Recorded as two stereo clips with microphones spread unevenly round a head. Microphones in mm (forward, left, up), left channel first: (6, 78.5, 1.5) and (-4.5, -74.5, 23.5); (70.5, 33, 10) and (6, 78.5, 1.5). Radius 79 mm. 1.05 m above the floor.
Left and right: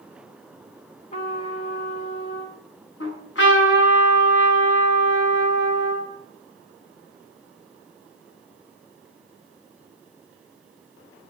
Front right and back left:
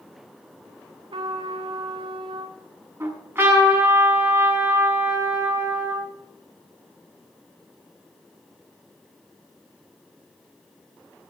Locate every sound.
1.1 s a trumpet: 135° left, 2 m
3.0 s a trumpet: 80° left, 6.5 m